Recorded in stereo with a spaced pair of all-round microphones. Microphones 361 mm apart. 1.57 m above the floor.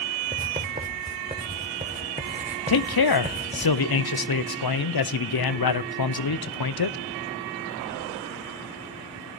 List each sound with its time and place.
0.3 s writing: 20° right (ahead or behind), 1.3 m
2.7 s a man speaking: 80° left, 0.6 m